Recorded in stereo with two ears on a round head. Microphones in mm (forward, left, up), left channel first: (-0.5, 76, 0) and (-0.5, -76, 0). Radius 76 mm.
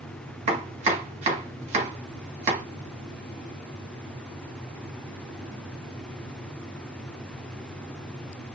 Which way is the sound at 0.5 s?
40° right (ahead or behind).